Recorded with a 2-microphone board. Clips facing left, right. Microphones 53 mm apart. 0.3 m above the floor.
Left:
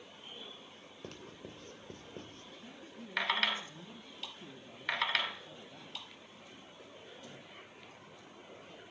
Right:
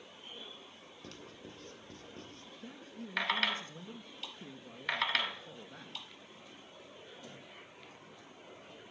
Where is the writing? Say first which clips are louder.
Left 2 dB; 30° left (ahead or behind), 3 m.